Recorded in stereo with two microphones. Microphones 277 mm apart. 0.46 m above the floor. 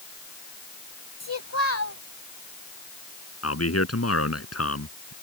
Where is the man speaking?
60° left (ahead or behind).